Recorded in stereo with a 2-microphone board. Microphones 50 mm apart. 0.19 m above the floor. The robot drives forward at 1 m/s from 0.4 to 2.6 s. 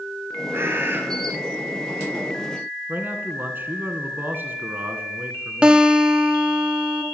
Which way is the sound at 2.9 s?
45° right (ahead or behind).